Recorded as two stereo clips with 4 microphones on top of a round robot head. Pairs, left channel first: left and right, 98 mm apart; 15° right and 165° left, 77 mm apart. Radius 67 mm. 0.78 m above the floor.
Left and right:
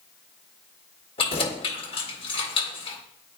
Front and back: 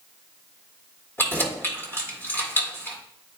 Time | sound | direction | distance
1.2 | keys jangling | 50° left | 1.9 m